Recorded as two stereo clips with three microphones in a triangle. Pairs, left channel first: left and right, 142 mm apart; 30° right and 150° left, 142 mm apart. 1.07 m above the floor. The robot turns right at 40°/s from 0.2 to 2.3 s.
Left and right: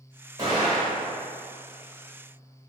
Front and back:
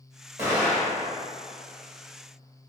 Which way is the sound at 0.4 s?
145° right.